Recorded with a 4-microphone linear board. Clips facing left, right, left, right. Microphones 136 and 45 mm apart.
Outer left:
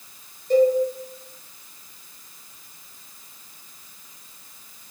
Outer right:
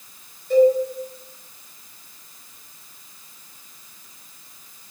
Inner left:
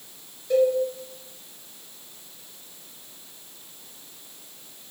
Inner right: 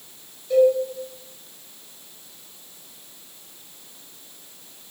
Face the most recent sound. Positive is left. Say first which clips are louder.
# outer right 2 dB, inner right 4 dB
turn(degrees=40)  # may be behind; listen again after turning